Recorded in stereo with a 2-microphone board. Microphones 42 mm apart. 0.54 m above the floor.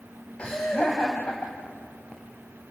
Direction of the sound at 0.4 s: 25° left (ahead or behind).